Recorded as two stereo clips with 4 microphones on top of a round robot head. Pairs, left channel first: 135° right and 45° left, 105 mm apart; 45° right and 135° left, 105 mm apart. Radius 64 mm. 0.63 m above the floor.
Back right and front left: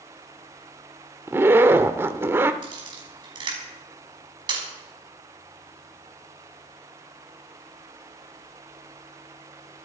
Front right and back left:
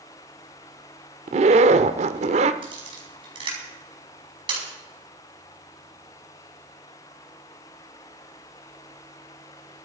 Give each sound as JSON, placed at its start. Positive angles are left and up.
{"t": 1.3, "sound": "a zipper", "azimuth_deg": 115, "distance_m": 0.8}
{"t": 2.6, "sound": "a camera shutter", "azimuth_deg": 90, "distance_m": 5.5}